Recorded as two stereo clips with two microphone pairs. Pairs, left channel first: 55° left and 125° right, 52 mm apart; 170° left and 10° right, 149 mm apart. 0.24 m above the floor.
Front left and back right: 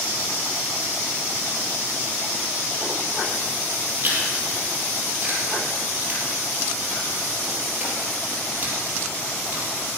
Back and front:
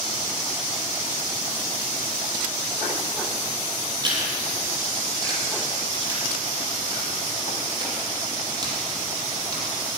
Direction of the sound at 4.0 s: 70° right.